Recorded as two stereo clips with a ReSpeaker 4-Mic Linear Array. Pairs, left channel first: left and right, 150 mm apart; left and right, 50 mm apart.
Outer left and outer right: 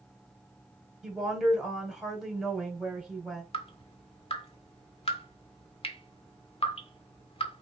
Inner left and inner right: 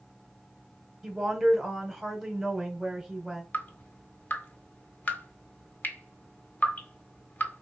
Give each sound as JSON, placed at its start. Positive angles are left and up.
{"t": 1.0, "sound": "a woman speaking", "side_deg": -5, "distance_m": 2.0}
{"t": 3.5, "sound": "dripping", "side_deg": 40, "distance_m": 0.9}